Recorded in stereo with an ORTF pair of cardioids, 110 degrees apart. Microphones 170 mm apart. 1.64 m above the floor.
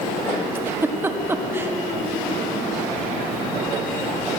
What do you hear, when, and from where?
0.6 s a giggle: 15° right, 1.1 m